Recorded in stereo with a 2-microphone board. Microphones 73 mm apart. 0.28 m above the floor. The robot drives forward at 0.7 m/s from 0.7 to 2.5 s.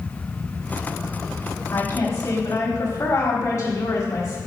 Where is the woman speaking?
40° left (ahead or behind), 1.4 m.